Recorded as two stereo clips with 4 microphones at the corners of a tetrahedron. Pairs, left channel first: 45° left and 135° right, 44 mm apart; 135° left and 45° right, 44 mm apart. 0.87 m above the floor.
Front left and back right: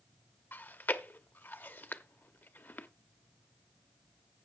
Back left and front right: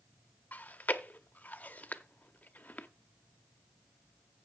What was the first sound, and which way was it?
Chewing, 85° left.